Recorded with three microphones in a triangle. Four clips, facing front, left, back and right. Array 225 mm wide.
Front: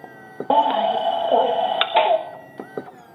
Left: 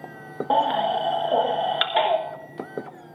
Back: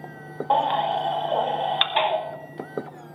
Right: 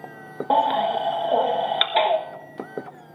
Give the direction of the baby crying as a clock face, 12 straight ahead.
12 o'clock.